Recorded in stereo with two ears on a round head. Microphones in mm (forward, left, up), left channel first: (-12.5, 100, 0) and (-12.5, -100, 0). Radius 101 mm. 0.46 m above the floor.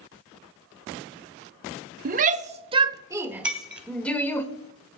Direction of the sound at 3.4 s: 5° right (ahead or behind).